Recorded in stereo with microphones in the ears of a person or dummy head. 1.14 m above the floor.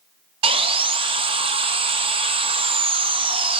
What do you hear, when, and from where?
0.4 s sawing: 25° right (ahead or behind), 0.6 m